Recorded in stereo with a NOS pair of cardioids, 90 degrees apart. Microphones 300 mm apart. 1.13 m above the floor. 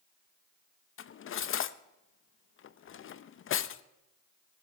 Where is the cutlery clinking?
45° left, 0.6 m.